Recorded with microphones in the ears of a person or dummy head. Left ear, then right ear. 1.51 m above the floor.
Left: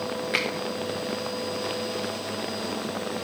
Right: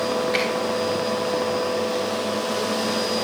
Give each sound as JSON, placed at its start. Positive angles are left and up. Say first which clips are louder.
{"t": 0.3, "sound": "a finger snap", "louder": "even", "side_deg": 45, "distance_m": 1.4}